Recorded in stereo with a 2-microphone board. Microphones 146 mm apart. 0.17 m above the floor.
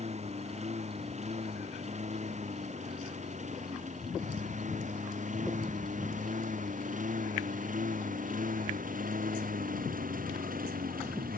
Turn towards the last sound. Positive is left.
turn(degrees=-75)  # may be behind; listen again after turning